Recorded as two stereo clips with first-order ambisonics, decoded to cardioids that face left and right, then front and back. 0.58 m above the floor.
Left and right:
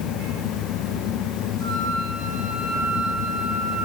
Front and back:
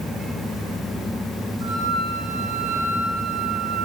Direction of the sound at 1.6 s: 165° left.